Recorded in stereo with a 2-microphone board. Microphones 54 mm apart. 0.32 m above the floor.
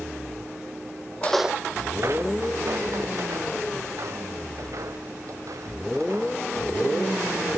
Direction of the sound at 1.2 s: 30° left (ahead or behind).